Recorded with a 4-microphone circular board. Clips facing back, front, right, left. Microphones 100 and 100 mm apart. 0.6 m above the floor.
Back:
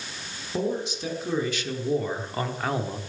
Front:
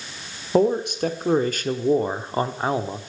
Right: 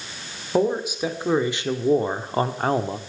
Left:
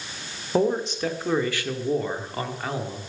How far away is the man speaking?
About 1.6 m.